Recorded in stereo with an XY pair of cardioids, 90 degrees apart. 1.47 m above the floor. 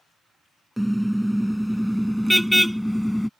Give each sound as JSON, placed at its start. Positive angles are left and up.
{"t": 0.8, "sound": "a car horn", "azimuth_deg": -5}